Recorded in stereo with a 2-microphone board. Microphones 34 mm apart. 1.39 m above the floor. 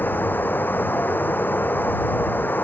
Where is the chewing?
No chewing in this recording.